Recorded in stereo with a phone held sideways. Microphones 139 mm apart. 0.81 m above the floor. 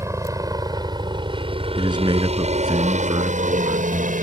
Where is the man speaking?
30° right (ahead or behind).